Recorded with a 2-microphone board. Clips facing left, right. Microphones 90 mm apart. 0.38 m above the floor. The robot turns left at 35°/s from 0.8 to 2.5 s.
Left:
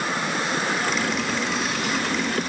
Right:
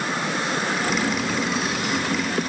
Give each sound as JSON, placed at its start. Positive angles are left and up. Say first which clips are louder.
{"t": 0.8, "sound": "boiling", "louder": "right 1 dB", "azimuth_deg": -125, "distance_m": 7.0}